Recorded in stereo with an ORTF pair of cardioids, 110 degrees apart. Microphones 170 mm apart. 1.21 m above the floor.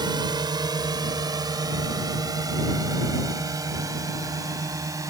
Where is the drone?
25° right; by 5.1 s 20° right.